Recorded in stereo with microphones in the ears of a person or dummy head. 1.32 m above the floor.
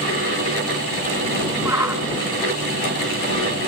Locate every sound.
1.6 s a shout: 10° right (ahead or behind)